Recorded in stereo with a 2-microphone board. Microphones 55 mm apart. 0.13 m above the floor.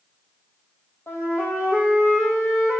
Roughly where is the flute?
Left.